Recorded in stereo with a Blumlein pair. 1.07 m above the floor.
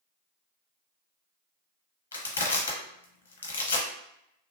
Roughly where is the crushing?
Left.